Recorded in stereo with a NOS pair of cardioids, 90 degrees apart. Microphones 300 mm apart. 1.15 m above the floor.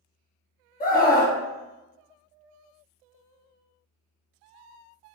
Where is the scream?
25° left, 0.9 m.